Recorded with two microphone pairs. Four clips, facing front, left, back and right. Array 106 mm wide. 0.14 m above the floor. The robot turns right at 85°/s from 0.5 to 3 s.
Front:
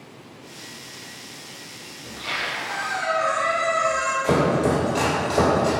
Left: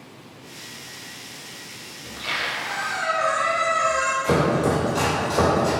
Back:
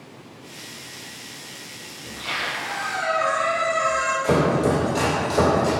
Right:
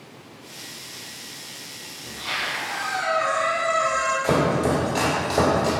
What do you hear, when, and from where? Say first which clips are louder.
2.0 s a squeak: left 1 dB, back 1 dB; 75° left, 1.1 m; by 4.1 s 160° left, 1.1 m
4.2 s chopping: left 1 dB, even; 60° right, 1.4 m